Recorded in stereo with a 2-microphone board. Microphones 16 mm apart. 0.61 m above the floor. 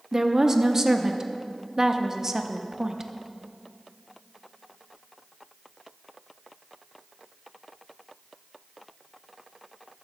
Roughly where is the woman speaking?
Right.